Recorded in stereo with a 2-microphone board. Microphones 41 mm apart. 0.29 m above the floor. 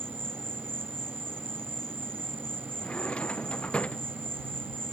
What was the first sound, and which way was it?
An insect, 70° right (ahead or behind).